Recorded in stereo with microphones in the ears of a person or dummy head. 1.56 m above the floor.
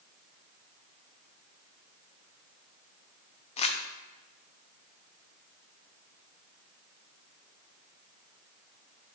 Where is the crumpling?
35° left (ahead or behind), 0.6 m.